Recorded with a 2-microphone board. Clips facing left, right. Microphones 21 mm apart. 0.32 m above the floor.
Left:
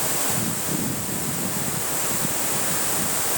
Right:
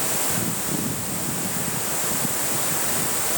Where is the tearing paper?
No tearing paper in this recording.